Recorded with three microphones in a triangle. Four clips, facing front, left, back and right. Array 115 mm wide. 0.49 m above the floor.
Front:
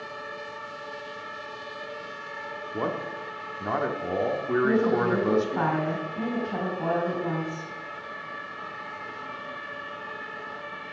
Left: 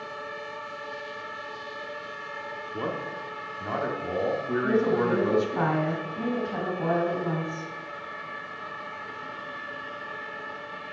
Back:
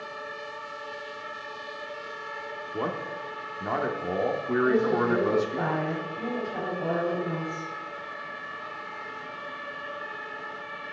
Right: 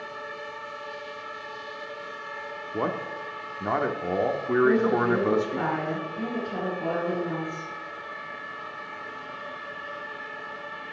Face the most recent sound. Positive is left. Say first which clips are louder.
# right 2 dB, even
turn(degrees=30)